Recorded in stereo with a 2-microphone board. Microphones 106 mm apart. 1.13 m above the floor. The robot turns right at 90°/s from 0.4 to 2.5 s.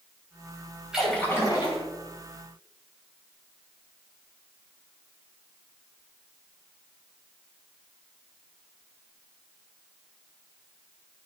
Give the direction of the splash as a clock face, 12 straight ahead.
12 o'clock.